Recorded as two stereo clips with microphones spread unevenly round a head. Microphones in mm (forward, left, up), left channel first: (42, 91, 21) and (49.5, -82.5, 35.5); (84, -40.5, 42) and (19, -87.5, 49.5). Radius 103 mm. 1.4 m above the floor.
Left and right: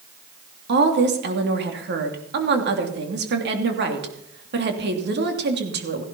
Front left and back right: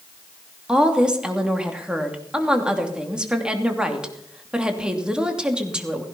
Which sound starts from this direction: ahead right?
A woman speaking, at 0.7 s.